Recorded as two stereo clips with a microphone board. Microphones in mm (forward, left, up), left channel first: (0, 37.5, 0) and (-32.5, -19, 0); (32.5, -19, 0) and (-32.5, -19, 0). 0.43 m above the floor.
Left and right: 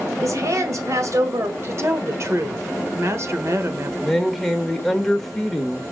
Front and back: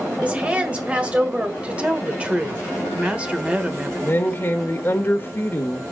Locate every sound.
0.2 s a woman speaking: 110° right, 1.6 m
1.6 s a woman speaking: 115° right, 1.1 m
4.0 s a woman speaking: 25° right, 1.4 m